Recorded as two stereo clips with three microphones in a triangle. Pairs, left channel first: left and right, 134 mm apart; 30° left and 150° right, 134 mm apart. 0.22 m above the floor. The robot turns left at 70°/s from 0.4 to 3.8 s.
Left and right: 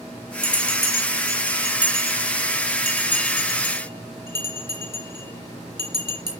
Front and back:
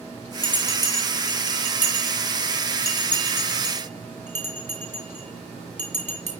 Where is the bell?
90° left, 4 m; by 6.3 s 145° right, 4 m.